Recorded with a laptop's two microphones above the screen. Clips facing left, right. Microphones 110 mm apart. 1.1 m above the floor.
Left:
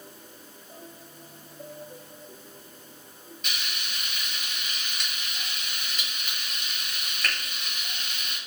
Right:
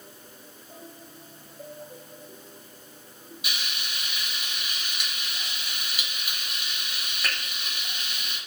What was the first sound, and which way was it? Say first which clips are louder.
Frying: right 1 dB; 10° right (ahead or behind).